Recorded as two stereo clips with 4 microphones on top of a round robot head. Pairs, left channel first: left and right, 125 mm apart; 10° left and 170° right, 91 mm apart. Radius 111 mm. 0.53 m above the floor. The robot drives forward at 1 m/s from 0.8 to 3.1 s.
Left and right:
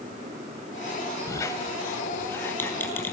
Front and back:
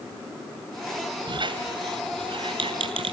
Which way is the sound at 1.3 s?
155° left.